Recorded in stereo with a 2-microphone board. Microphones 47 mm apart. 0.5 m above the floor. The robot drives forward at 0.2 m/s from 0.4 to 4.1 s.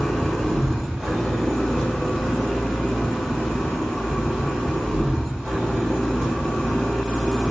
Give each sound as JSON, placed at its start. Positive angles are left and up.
{"t": 0.0, "sound": "an engine running", "side_deg": 0, "distance_m": 1.3}